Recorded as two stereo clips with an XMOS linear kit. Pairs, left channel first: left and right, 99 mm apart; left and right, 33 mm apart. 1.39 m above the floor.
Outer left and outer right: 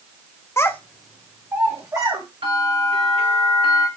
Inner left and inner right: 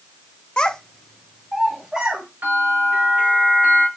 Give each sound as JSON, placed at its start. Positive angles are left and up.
{"t": 0.6, "sound": "a child speaking", "side_deg": 30, "distance_m": 0.6}
{"t": 2.4, "sound": "a bell", "side_deg": -85, "distance_m": 4.5}